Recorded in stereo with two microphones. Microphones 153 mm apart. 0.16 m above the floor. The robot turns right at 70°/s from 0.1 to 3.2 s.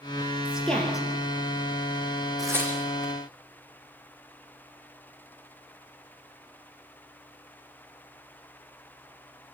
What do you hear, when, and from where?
0.5 s a woman speaking: 10° right (ahead or behind), 3.5 m; by 1.1 s 30° left (ahead or behind), 3.5 m
2.4 s tearing paper: 25° right (ahead or behind), 5 m; by 3.1 s 25° left (ahead or behind), 5 m